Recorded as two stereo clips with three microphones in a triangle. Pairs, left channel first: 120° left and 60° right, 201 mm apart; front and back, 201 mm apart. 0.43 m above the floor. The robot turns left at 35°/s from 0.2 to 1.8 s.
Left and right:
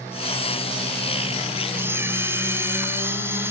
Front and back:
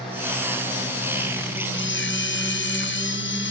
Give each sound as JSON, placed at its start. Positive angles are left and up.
{"t": 1.7, "sound": "a camera shutter", "azimuth_deg": 20, "distance_m": 1.5}